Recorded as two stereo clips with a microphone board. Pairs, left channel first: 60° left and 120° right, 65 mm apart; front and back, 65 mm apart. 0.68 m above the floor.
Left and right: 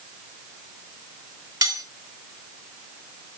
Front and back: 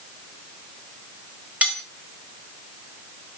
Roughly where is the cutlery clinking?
Right.